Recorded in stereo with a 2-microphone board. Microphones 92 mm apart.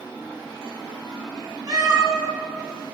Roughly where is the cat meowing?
Right.